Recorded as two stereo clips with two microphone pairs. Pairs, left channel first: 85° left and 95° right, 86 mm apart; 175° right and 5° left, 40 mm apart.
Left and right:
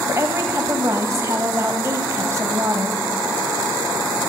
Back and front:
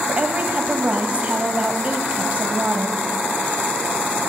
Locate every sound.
0.1 s a woman speaking: 45° right, 1.7 m